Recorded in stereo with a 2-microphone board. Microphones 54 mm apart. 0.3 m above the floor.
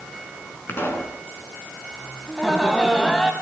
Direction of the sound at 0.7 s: 45° left (ahead or behind).